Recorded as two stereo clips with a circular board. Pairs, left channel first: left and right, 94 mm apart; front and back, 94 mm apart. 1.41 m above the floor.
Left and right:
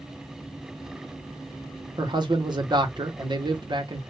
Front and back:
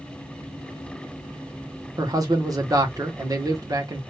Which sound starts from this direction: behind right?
A man speaking, at 2.0 s.